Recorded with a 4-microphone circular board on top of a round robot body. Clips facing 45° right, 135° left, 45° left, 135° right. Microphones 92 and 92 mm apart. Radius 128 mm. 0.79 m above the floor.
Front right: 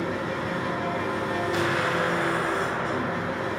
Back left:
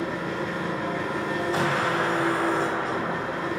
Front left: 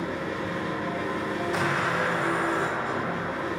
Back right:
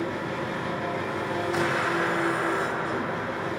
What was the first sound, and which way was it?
An engine running, 115° right.